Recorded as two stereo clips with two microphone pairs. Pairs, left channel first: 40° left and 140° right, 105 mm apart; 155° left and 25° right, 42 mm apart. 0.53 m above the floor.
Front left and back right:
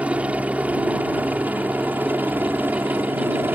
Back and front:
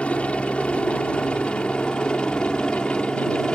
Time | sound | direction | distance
0.0 | a helicopter | 160° left | ?